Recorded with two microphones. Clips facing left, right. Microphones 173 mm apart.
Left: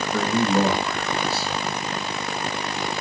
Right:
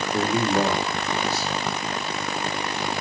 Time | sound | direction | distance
0.1 | a man speaking | 65° left (ahead or behind) | 3.5 m